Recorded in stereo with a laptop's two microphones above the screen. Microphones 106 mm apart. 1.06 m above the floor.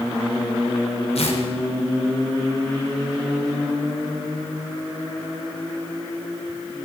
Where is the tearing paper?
75° left (ahead or behind), 3 m.